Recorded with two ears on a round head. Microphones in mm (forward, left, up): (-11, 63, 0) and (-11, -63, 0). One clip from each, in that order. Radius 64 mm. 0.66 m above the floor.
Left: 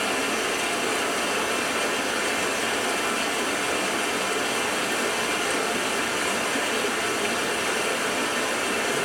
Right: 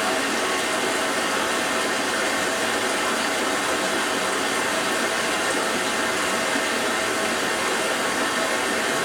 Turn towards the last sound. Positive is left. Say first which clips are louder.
# right 2 dB
turn(degrees=10)  # may be behind; listen again after turning